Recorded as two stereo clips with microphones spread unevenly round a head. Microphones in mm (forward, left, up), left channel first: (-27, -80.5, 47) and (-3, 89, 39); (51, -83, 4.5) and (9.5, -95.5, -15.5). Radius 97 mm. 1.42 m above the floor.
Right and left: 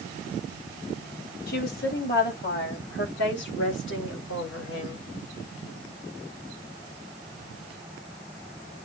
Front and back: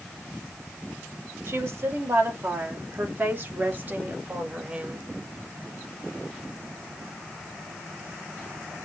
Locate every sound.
1.5 s a woman speaking: 135° right, 3 m; by 5.0 s 95° right, 1.9 m